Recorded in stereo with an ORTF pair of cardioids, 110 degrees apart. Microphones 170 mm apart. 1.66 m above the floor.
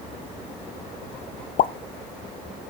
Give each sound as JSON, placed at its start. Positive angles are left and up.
{"t": 1.6, "sound": "a pop", "azimuth_deg": 55, "distance_m": 0.8}